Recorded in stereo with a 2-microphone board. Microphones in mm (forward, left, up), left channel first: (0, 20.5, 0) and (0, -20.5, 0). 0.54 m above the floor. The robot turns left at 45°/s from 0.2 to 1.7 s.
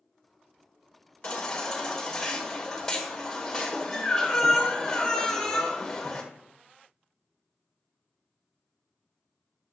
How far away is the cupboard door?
I don't hear a cupboard door.